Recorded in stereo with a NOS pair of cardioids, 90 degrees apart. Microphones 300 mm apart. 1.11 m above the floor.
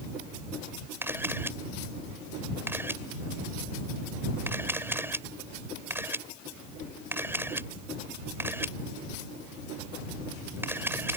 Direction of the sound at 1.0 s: 5° right.